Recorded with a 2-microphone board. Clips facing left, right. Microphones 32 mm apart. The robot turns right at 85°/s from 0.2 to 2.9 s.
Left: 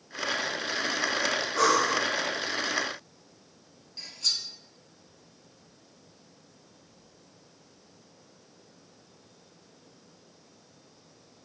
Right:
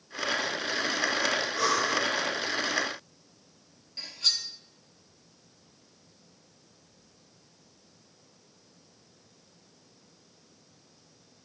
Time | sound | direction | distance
1.6 | breathing | 55° left | 0.9 m
4.0 | cutlery clinking | 15° right (ahead or behind) | 1.3 m